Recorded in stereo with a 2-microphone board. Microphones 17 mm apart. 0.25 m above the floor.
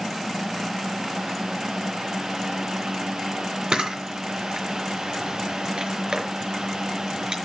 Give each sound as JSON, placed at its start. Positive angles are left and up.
{"t": 3.7, "sound": "a camera shutter", "side_deg": -60, "distance_m": 4.5}